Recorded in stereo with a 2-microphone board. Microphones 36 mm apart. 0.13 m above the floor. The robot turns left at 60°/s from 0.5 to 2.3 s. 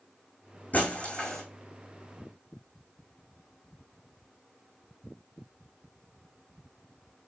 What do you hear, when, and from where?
0.7 s breaking glass: 50° left (ahead or behind), 4.5 m; by 1.4 s 10° left (ahead or behind), 4.5 m